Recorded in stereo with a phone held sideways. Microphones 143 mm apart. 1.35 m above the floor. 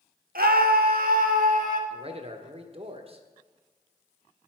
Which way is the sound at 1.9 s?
40° right (ahead or behind).